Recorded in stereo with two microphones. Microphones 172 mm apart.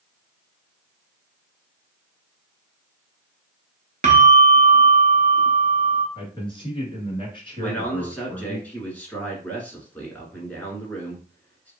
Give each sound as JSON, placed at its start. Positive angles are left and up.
{"t": 4.0, "sound": "a bell", "side_deg": -45, "distance_m": 0.6}
{"t": 6.2, "sound": "a man speaking", "side_deg": 30, "distance_m": 1.6}
{"t": 7.6, "sound": "a man speaking", "side_deg": 10, "distance_m": 1.2}